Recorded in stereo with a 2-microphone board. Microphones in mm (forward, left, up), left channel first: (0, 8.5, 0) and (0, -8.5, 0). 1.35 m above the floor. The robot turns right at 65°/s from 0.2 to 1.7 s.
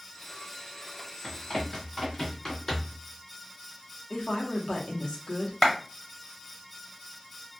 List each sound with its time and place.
1.2 s running footsteps: 40° left (ahead or behind), 1.8 m; by 3.0 s 35° left (ahead or behind), 1.8 m
4.1 s a woman speaking: 75° left (ahead or behind), 0.9 m
5.6 s a clap: 20° left (ahead or behind), 0.8 m